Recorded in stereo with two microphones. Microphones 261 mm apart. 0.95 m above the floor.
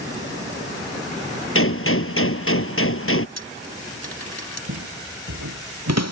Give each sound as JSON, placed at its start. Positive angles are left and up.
{"t": 1.6, "sound": "a gunshot", "side_deg": 55}
{"t": 3.4, "sound": "a dropped coin", "side_deg": 80}
{"t": 4.7, "sound": "footsteps", "side_deg": -80}